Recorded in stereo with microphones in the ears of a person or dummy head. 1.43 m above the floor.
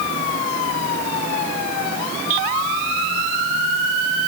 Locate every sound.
Only background noise.